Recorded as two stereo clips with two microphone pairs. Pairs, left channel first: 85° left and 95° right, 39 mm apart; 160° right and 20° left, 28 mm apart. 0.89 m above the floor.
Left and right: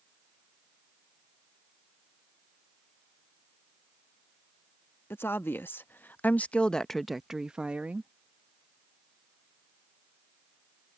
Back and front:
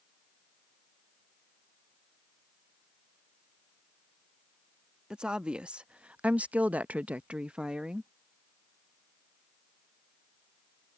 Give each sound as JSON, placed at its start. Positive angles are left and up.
{"t": 5.1, "sound": "a woman speaking", "azimuth_deg": 75}